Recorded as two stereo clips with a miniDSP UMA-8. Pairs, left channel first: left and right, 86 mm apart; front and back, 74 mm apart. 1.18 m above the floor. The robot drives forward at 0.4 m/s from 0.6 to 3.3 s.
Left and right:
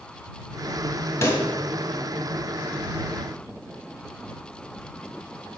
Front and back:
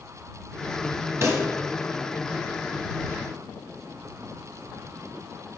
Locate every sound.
1.2 s a pop: 140° left, 1.6 m